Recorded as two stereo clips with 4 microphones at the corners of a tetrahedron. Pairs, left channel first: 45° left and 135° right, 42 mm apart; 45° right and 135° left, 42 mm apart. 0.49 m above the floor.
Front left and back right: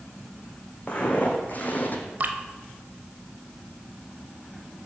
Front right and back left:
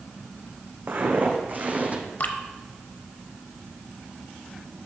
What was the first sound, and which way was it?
Footsteps, 105° left.